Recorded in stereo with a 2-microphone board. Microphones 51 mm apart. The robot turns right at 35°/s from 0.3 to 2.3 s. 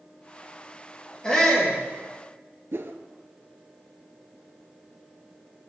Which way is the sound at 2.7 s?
55° right (ahead or behind).